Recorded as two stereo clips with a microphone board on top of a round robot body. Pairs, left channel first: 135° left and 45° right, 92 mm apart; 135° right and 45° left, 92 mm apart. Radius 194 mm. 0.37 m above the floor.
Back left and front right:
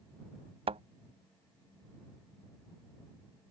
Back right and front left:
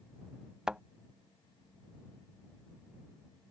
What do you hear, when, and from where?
0.7 s a thud: 35° right